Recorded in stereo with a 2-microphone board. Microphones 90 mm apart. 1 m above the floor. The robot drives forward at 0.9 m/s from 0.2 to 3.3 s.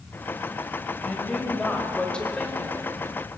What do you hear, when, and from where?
1.0 s a woman speaking: 10° left (ahead or behind), 4.5 m; by 3.0 s 15° left (ahead or behind), 3 m